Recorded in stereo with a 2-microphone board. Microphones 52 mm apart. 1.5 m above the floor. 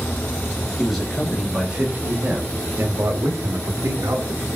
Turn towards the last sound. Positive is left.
turn(degrees=-85)